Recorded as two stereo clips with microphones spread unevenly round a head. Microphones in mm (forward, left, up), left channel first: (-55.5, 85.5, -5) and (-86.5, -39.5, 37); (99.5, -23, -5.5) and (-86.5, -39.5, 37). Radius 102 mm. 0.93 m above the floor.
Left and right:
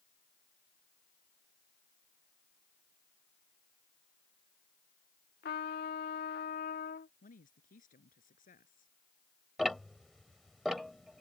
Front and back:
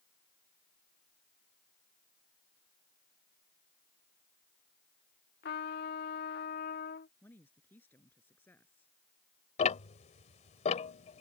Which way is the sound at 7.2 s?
85° left.